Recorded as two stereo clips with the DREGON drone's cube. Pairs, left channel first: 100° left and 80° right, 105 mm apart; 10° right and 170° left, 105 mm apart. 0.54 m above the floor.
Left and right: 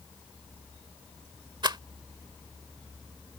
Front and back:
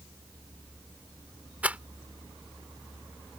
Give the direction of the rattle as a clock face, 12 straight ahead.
4 o'clock.